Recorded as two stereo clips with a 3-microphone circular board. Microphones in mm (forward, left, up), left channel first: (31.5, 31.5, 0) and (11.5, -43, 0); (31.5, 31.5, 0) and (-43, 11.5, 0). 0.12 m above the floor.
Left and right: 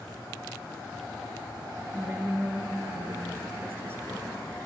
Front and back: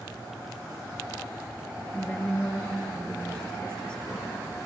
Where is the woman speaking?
60° right, 2 m.